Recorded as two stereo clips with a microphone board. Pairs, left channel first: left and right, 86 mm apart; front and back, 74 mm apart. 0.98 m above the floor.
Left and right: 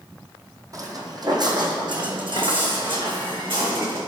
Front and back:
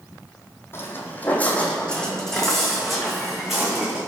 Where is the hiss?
I don't hear a hiss.